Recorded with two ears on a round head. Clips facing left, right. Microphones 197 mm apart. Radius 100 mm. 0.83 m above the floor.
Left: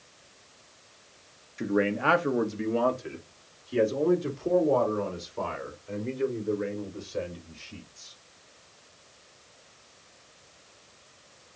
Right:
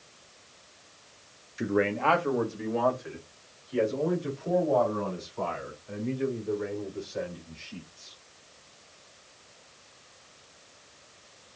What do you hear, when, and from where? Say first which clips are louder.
1.6 s a man speaking: even; 5° right (ahead or behind), 0.6 m; by 8.1 s 50° left (ahead or behind), 4.5 m